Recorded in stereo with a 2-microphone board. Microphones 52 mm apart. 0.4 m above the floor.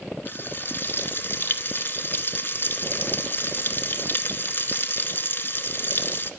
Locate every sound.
0.2 s frying: 40° left (ahead or behind), 0.8 m